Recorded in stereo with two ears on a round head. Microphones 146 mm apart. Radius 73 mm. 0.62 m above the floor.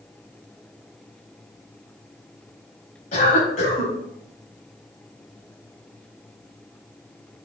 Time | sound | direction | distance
3.1 | a cough | 50° left (ahead or behind) | 4.5 m